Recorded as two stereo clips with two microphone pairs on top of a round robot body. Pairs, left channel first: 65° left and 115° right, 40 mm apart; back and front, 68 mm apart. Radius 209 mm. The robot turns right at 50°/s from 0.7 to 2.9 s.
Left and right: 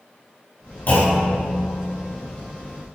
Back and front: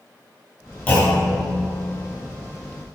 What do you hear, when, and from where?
0.9 s a clunk: 110° left, 4.5 m; by 1.4 s 135° left, 4.5 m